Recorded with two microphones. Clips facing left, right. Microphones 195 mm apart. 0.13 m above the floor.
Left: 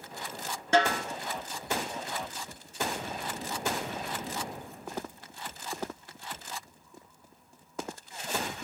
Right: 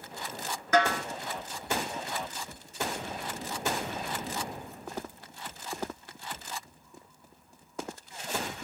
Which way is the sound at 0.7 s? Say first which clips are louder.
Even; 35° left (ahead or behind).